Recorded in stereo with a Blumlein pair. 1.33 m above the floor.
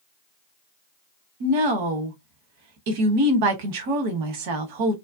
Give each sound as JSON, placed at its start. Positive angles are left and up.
{"t": 1.4, "sound": "a woman speaking", "azimuth_deg": -50, "distance_m": 0.8}